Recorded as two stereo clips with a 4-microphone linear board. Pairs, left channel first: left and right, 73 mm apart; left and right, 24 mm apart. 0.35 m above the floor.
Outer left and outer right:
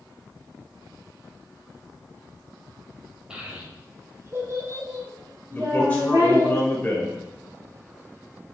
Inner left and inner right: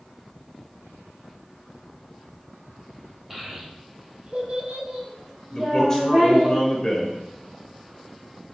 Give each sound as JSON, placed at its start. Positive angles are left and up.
{"t": 3.3, "sound": "a child speaking", "side_deg": -15, "distance_m": 1.0}
{"t": 5.5, "sound": "a man speaking", "side_deg": 15, "distance_m": 1.4}